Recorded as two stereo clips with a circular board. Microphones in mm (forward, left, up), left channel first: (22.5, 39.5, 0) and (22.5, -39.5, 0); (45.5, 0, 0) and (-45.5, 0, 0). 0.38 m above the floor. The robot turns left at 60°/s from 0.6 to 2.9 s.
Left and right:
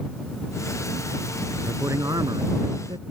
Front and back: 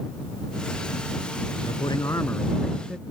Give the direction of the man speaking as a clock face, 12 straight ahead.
1 o'clock.